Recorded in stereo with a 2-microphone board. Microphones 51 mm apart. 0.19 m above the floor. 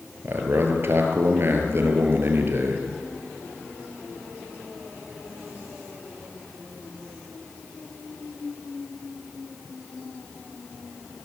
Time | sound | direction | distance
0.2 | a man speaking | 50° right (ahead or behind) | 4 m